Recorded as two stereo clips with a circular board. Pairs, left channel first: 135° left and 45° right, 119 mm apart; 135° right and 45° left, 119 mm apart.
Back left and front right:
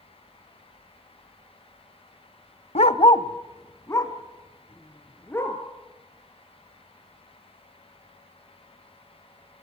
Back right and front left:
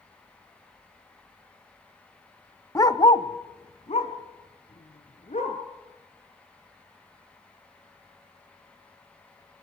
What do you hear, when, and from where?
2.8 s a dog barking: 160° left, 0.7 m; by 5.6 s 155° right, 4 m